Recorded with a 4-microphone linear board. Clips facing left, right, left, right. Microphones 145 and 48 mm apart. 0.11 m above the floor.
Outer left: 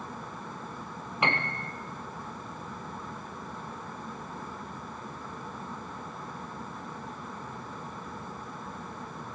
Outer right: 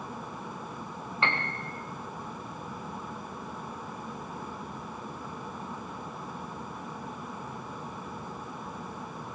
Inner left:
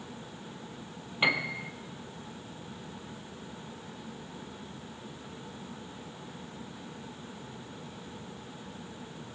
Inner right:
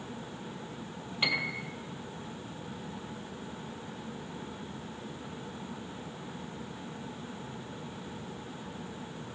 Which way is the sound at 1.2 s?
20° left (ahead or behind).